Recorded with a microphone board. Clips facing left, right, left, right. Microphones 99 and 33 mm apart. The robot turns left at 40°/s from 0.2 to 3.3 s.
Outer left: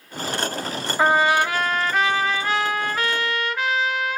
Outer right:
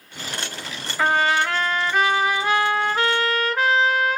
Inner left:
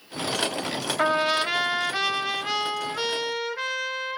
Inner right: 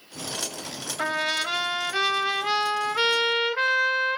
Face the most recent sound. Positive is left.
turn(degrees=-55)